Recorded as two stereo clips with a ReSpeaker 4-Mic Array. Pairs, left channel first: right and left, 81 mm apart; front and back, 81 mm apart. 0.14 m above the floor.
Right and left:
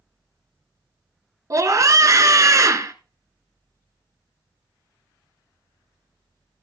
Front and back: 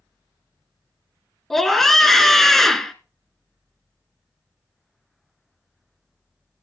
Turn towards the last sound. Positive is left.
turn(degrees=85)